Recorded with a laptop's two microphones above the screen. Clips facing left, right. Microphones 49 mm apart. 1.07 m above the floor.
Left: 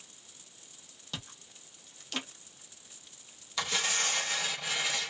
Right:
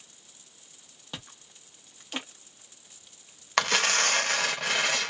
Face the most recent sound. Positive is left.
turn(degrees=-80)